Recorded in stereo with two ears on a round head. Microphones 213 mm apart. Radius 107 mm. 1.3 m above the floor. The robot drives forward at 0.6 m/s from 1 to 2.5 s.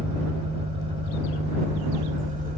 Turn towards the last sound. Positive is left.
turn(degrees=-35)  # may be behind; listen again after turning